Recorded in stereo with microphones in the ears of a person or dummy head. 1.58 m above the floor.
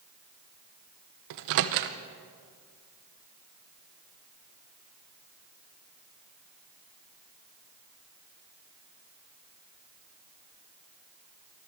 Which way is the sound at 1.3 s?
60° right (ahead or behind).